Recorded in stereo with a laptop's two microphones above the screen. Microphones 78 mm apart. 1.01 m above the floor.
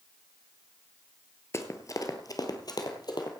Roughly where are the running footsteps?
Left.